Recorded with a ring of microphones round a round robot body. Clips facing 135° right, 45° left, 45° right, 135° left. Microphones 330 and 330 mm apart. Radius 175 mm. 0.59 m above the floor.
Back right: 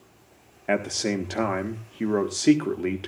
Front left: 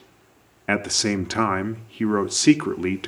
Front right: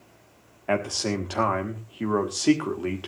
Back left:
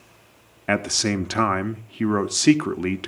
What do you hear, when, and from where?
0.7 s a man speaking: 100° left, 1.4 m